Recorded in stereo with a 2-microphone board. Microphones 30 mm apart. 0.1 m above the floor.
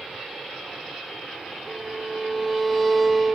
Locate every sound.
1.7 s a violin: 5° left (ahead or behind), 1.1 m